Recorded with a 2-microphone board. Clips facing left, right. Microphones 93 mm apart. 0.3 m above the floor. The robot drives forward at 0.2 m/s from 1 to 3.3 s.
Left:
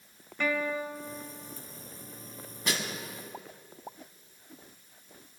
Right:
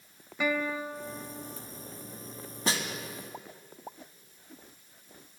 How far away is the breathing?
I don't hear breathing.